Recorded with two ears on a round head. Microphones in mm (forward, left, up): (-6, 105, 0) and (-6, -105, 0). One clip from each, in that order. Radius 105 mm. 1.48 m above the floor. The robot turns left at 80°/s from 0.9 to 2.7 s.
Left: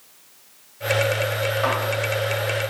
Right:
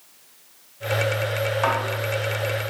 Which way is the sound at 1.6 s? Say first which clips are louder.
Right 1 dB; 5° left (ahead or behind).